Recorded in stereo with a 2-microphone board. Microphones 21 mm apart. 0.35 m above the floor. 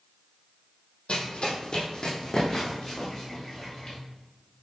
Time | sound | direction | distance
1.1 | running footsteps | 70° left (ahead or behind) | 0.8 m